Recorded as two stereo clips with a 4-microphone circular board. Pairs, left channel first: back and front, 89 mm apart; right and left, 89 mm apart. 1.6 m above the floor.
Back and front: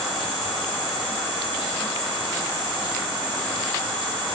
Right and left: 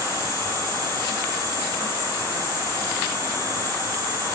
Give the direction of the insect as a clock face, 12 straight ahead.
7 o'clock.